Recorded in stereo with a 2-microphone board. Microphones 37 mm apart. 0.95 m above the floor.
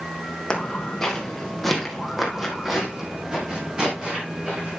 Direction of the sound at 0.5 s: 25° left (ahead or behind).